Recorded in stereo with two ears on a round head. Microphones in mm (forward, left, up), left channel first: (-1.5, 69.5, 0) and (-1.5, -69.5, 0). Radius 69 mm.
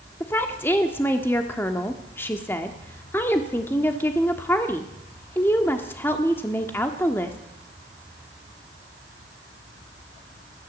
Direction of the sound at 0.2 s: 15° left (ahead or behind).